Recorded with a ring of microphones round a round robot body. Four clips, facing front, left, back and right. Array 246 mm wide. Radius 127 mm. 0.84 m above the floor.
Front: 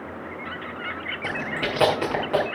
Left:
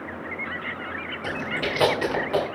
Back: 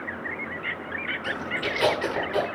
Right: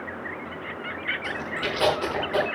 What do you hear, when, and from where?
1.2 s chewing: 25° left, 7 m